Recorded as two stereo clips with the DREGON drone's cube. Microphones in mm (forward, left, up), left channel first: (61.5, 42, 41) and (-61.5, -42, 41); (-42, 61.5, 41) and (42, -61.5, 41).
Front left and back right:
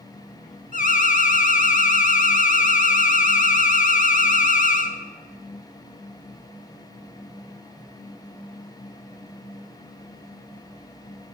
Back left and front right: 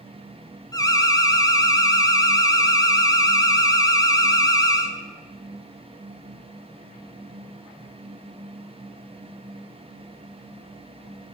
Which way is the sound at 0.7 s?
60° left.